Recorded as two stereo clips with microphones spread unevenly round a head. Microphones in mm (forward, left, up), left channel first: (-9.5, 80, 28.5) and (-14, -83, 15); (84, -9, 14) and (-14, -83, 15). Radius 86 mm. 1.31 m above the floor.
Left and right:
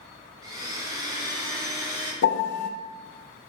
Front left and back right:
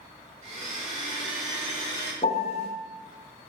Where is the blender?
160° right, 1.5 m.